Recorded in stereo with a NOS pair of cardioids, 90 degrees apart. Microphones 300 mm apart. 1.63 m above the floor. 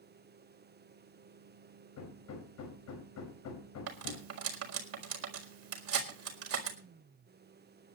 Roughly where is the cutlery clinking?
Ahead right.